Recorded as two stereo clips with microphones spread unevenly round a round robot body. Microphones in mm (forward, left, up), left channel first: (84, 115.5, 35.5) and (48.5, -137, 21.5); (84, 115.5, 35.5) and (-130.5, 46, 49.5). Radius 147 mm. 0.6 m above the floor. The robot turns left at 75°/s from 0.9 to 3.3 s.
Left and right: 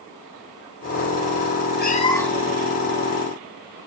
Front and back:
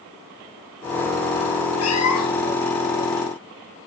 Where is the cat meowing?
30° left, 3.5 m; by 2.5 s 25° right, 3.5 m.